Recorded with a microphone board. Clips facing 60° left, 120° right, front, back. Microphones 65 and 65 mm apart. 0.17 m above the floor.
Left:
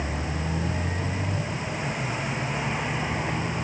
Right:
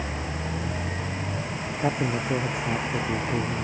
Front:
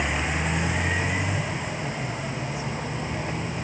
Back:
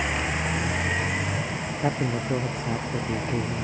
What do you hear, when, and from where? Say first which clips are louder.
1.8 s a man speaking: right 8 dB, back 4 dB; 140° right